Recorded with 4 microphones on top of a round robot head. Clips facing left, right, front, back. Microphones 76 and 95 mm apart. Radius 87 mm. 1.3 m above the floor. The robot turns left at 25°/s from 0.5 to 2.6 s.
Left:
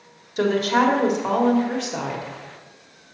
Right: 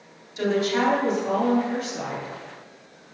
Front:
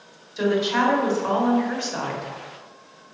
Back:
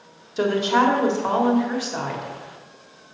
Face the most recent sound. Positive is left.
turn(degrees=75)